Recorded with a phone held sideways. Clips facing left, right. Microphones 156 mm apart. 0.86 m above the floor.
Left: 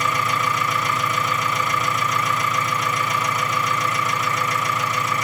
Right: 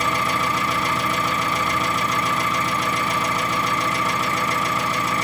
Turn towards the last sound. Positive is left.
turn(degrees=-30)  # may be behind; listen again after turning